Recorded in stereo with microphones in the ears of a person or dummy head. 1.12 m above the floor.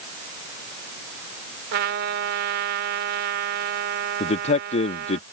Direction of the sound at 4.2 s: 40° left (ahead or behind).